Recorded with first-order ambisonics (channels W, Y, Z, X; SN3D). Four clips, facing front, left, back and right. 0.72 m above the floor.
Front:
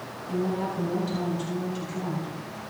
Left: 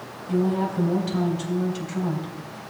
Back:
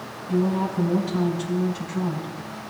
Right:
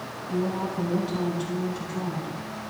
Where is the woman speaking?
95° left, 3.5 m.